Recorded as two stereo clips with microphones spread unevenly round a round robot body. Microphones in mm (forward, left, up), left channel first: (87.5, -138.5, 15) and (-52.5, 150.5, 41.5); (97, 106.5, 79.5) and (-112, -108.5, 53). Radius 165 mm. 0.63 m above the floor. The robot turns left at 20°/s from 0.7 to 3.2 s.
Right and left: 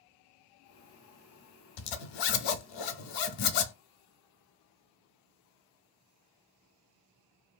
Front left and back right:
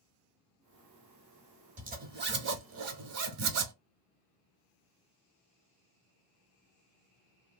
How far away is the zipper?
About 0.5 m.